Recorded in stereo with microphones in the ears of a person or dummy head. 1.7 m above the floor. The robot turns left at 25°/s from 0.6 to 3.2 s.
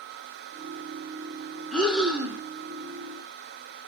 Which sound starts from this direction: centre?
Breathing, at 1.7 s.